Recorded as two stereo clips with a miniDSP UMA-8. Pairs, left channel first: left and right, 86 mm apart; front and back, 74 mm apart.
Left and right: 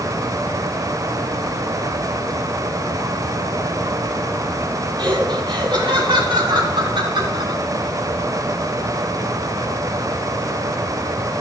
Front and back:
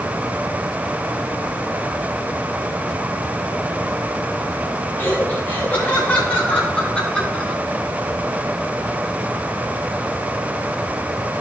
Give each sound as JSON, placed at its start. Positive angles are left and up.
{"t": 5.0, "sound": "laughter", "azimuth_deg": -65, "distance_m": 5.0}